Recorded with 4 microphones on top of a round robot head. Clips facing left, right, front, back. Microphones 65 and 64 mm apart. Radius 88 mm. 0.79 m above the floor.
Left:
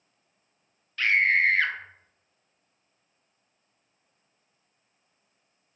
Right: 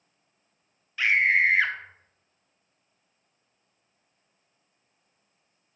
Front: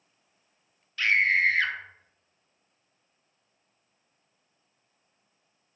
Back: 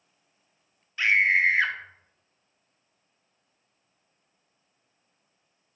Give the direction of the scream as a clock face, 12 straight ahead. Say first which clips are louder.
Right 1 dB, back 2 dB; 5 o'clock.